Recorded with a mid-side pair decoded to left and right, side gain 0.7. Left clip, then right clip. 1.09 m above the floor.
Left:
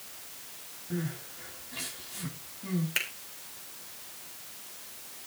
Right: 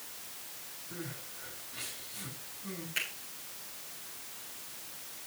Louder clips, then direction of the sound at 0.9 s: Left 7 dB; 50° left.